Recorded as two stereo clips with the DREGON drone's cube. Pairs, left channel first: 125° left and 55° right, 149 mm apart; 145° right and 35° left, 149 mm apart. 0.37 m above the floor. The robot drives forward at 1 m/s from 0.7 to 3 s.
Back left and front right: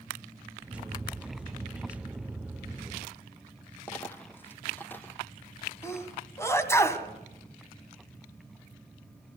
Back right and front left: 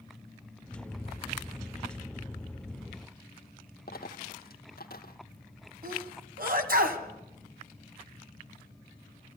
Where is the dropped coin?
160° right, 1.5 m.